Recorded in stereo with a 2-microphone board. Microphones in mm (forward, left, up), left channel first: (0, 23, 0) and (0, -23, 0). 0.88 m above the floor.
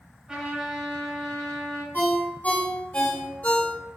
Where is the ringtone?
45° left (ahead or behind), 1.6 m.